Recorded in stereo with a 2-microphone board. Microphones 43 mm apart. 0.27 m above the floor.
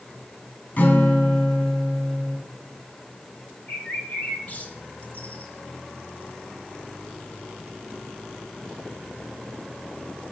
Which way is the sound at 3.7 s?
45° left (ahead or behind).